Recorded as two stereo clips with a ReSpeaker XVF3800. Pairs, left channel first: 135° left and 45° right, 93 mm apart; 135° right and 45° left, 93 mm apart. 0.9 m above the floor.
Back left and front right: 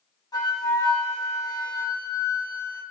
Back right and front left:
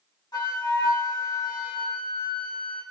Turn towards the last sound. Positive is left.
turn(degrees=180)